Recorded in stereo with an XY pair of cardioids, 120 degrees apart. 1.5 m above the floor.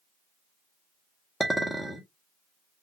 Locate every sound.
1.4 s a clink: 5° right, 1.1 m